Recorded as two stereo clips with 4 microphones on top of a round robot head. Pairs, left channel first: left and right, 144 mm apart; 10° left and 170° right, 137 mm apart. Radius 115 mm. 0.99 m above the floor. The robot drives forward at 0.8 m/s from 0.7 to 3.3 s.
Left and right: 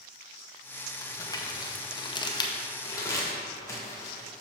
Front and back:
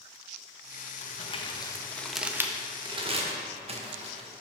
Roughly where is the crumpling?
Ahead left.